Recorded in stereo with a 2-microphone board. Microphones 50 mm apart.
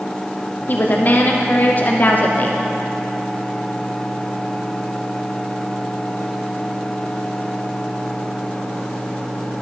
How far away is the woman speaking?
About 0.5 m.